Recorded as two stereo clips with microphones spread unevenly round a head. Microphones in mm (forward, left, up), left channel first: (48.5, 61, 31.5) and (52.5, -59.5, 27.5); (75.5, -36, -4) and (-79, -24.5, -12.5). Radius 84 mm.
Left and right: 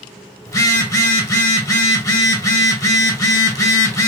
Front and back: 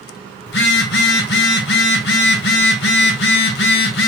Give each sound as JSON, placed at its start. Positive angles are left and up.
{"t": 0.5, "sound": "a phone buzzing", "azimuth_deg": 30, "distance_m": 1.4}